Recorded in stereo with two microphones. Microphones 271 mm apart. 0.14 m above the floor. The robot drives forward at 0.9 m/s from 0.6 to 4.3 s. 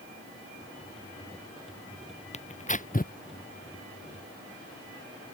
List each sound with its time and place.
2.3 s tearing paper: 25° left (ahead or behind); by 3.1 s 35° left (ahead or behind)